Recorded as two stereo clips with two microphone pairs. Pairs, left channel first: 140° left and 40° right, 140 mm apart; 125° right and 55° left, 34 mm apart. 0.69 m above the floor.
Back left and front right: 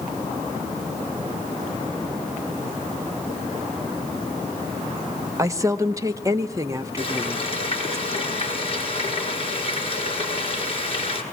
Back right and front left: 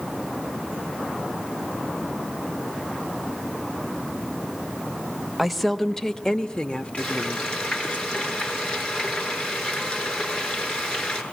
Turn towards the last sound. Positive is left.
turn(degrees=-175)